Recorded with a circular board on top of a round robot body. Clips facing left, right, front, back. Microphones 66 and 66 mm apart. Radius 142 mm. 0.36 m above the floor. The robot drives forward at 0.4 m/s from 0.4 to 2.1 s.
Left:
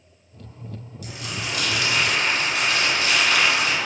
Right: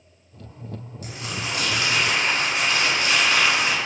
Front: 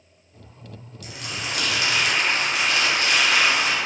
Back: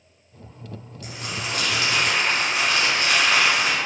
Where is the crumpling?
130° right, 1.1 m; by 3.8 s 150° right, 1.4 m.